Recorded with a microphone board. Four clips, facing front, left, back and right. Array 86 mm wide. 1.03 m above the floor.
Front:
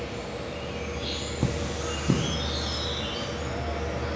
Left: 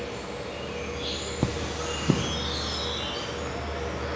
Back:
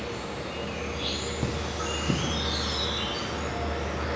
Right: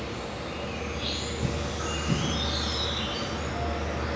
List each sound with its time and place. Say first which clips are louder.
0.0 s an insect: even, even; 160° right, 5 m
1.4 s cutlery clinking: left 3 dB, front 4 dB; 70° left, 0.9 m